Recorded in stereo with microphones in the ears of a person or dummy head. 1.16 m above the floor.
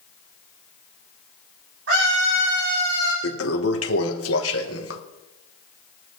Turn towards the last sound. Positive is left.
turn(degrees=65)  # may be behind; listen again after turning